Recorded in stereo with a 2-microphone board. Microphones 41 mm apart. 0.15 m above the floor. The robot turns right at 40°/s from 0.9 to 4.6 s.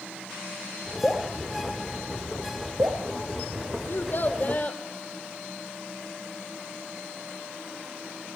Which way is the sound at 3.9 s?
60° left (ahead or behind).